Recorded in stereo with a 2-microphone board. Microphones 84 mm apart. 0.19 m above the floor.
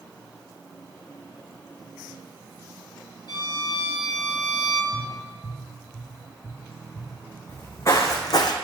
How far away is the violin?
About 1.0 m.